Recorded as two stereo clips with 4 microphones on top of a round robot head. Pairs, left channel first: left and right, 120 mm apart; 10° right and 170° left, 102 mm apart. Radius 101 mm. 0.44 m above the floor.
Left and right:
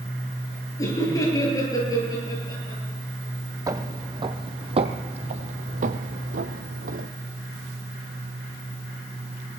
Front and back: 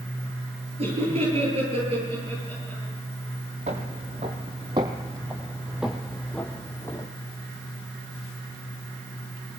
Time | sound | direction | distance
0.8 | laughter | 155° left | 8.5 m
3.7 | footsteps | 150° right | 1.5 m